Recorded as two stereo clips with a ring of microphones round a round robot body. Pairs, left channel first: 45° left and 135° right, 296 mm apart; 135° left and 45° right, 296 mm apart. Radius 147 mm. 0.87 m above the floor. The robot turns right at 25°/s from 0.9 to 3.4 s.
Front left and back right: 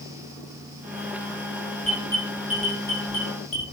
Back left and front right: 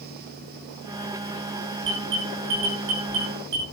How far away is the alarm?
About 6.5 m.